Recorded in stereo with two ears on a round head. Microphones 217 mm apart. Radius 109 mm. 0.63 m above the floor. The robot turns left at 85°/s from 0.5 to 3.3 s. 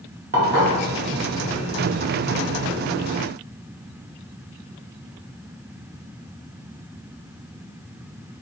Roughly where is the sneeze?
I don't hear a sneeze.